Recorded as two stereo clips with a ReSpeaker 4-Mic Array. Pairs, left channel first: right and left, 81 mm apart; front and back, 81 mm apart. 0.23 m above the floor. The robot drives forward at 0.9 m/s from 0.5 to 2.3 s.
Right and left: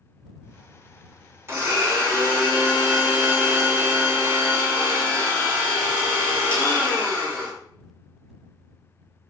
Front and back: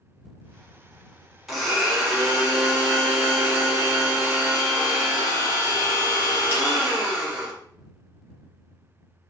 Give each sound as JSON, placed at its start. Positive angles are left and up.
{"t": 1.5, "sound": "a blender", "azimuth_deg": 100, "distance_m": 1.8}